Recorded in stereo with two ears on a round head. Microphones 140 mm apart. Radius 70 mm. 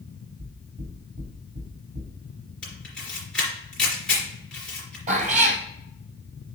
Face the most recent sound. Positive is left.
turn(degrees=-50)  # may be behind; listen again after turning